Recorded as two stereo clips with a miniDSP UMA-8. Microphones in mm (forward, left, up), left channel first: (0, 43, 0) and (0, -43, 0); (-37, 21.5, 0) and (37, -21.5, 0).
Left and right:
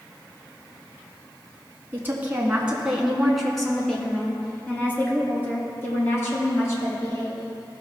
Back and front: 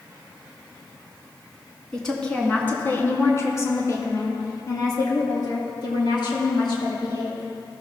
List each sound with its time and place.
1.9 s a woman speaking: 130° right, 1.6 m; by 7.4 s 140° left, 3.5 m